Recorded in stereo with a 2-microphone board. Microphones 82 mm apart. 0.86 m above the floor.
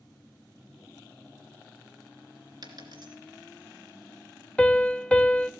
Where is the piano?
15° left (ahead or behind), 0.5 m.